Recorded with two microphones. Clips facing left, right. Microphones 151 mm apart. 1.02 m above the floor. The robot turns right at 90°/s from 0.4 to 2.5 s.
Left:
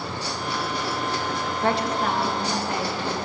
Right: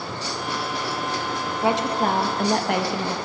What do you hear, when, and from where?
1.6 s a woman speaking: 175° right, 1.0 m; by 3.2 s 95° right, 1.0 m